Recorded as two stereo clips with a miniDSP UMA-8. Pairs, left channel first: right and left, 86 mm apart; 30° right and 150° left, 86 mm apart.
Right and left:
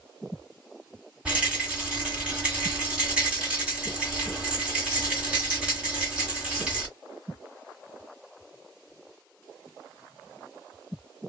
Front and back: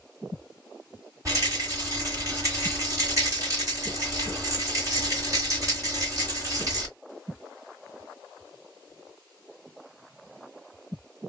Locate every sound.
1.2 s a rattle: 160° left, 1.9 m